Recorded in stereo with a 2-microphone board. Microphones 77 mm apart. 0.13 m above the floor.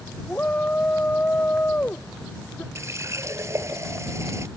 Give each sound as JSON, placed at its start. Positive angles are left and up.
{"t": 0.3, "sound": "a shout", "side_deg": 20}
{"t": 2.8, "sound": "a running tap", "side_deg": -35}